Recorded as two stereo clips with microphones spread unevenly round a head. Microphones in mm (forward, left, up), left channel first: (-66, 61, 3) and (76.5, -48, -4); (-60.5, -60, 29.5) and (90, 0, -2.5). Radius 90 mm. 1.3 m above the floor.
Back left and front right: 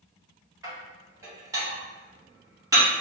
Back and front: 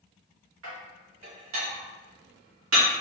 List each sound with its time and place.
0.6 s dishes clattering: 35° left, 1.2 m